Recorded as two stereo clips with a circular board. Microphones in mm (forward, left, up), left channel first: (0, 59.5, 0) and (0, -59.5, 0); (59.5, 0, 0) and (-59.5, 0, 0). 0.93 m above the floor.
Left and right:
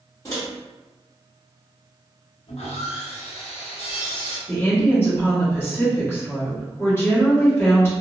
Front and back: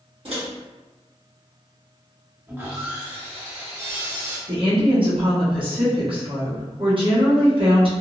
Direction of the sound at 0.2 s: 150° left.